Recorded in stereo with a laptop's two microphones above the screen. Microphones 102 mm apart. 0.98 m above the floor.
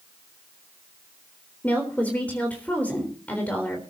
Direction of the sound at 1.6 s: 15° left (ahead or behind).